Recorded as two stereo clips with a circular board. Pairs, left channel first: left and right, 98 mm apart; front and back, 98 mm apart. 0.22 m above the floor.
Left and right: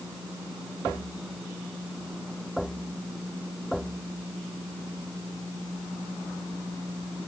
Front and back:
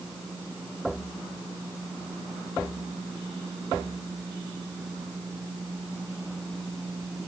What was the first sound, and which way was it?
Only background noise.